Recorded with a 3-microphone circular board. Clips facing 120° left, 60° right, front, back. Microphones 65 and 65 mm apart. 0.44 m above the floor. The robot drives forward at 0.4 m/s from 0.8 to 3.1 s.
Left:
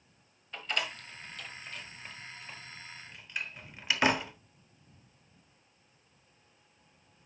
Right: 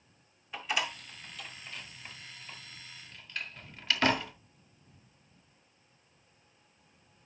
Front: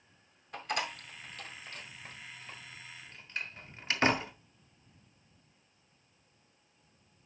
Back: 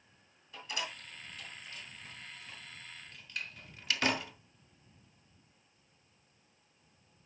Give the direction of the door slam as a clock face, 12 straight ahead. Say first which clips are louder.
Right 2 dB, front 5 dB; 11 o'clock.